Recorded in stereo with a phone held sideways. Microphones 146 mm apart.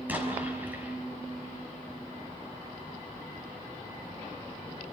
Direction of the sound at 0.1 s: 10° right (ahead or behind).